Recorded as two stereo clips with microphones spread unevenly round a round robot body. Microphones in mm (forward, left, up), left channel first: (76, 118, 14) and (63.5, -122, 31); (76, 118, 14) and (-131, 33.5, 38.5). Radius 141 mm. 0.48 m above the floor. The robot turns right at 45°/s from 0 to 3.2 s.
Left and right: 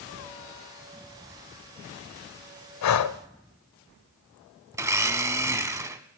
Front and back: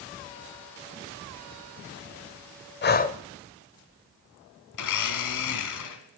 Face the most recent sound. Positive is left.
turn(degrees=-15)